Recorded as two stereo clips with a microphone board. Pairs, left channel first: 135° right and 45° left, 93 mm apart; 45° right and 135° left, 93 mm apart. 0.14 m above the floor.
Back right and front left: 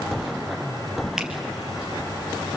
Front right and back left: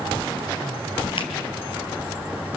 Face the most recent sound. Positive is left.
turn(degrees=-35)